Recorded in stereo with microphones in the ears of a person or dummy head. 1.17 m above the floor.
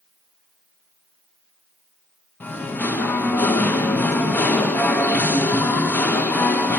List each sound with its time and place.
2.4 s singing: 10° left (ahead or behind), 0.5 m